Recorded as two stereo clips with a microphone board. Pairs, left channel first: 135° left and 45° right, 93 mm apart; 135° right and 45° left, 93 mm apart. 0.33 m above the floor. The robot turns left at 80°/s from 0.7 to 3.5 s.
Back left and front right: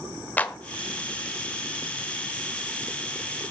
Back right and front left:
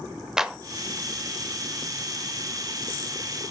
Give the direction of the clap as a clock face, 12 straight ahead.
8 o'clock.